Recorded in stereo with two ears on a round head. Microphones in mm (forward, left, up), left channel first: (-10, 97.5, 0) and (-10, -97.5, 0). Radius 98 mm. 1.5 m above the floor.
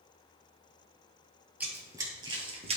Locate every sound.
1.6 s running footsteps: 10° right (ahead or behind), 1.5 m; by 2.8 s 30° right (ahead or behind), 1.8 m